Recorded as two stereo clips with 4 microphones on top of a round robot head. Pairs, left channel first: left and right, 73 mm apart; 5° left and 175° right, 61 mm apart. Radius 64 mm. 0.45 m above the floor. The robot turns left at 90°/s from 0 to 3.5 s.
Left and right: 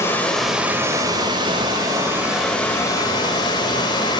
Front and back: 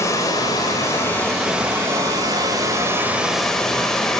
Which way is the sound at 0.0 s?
40° left.